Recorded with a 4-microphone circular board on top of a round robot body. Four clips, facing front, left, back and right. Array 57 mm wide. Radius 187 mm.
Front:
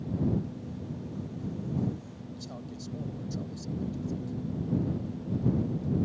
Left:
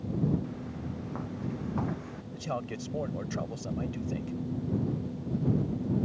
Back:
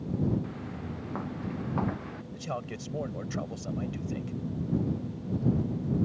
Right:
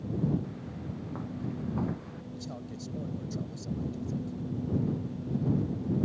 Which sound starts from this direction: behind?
Footsteps, at 0.4 s.